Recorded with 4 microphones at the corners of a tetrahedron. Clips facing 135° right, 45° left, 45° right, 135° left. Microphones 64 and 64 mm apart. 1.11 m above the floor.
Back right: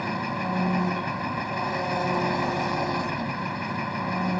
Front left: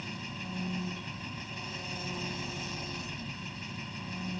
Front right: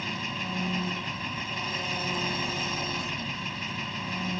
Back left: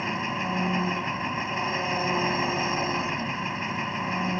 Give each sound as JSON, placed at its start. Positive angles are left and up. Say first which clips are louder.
{"t": 0.0, "sound": "an engine running", "louder": "back right 13 dB, back left 5 dB", "azimuth_deg": -165}